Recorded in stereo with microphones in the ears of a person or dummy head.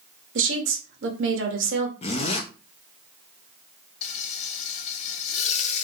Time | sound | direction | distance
0.3 | a woman speaking | 60° right (ahead or behind) | 1.1 m
2.0 | a zipper | 25° left (ahead or behind) | 0.5 m
4.0 | frying | 45° left (ahead or behind) | 0.5 m